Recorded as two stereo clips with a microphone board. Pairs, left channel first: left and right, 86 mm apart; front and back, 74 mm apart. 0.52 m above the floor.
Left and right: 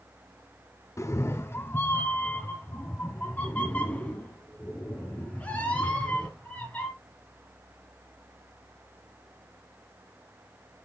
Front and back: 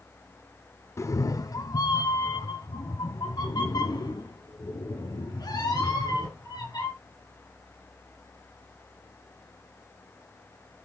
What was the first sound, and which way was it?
A cat meowing, 40° left.